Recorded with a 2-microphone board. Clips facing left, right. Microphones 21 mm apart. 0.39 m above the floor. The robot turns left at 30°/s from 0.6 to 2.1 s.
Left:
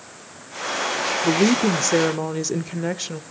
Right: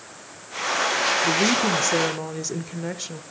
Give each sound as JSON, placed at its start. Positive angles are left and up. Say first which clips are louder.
{"t": 1.2, "sound": "a woman speaking", "louder": "left 2 dB", "side_deg": 30, "distance_m": 0.9}